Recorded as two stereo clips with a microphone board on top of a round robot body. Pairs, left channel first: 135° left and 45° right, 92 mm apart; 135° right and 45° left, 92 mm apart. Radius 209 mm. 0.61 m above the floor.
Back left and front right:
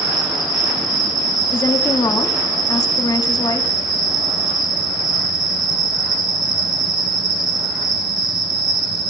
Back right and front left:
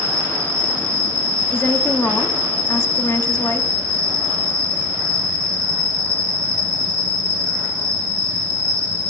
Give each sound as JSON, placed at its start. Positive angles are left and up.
{"t": 0.0, "sound": "an insect", "azimuth_deg": -20, "distance_m": 5.5}
{"t": 1.5, "sound": "a woman speaking", "azimuth_deg": 165, "distance_m": 1.9}